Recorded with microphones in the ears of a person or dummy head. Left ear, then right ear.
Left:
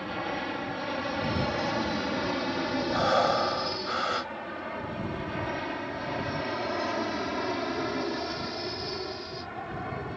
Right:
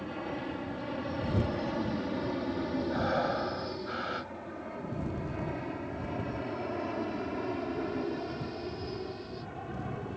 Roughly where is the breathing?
Left.